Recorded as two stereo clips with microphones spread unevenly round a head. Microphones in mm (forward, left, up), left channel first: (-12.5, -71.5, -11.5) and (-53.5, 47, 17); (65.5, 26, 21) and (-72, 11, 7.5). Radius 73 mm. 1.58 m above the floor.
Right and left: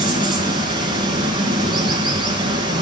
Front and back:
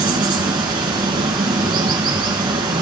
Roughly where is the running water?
Behind left.